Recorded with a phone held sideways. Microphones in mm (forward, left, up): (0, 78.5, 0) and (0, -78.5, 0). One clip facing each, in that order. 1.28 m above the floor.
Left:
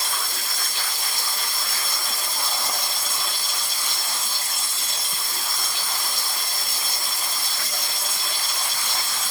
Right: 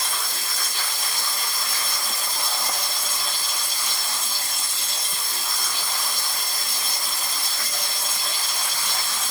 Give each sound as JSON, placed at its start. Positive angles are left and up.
{"t": 0.0, "sound": "running water", "side_deg": 45, "distance_m": 1.4}